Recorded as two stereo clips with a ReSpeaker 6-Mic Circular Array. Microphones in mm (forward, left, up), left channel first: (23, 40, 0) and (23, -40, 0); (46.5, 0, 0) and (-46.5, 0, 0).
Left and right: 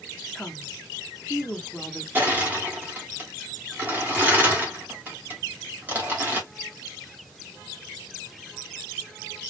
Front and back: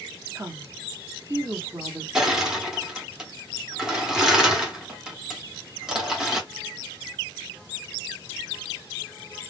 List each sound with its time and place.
0.3 s a woman speaking: 165° left, 0.8 m
2.1 s crushing: 105° right, 1.2 m